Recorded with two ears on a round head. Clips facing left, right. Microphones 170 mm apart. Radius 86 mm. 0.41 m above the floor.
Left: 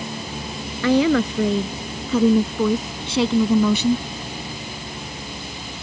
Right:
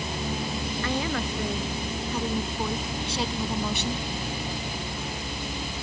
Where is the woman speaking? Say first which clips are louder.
Left 14 dB; 65° left (ahead or behind).